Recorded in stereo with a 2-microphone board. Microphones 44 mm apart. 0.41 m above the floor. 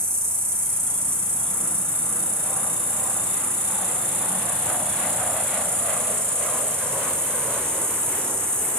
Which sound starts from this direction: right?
An insect, at 0.0 s.